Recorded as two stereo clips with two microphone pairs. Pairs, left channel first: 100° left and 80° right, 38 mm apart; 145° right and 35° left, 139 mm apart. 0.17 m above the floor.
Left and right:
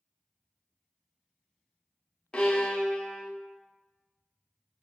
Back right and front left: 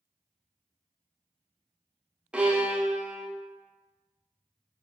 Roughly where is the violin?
Left.